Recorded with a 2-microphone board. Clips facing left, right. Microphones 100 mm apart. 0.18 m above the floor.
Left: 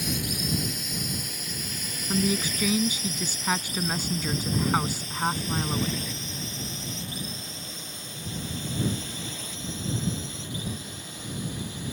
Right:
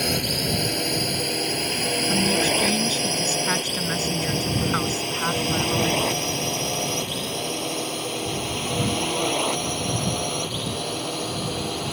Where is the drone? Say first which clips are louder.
Right 6 dB; 65° right (ahead or behind); by 11.9 s 75° right (ahead or behind).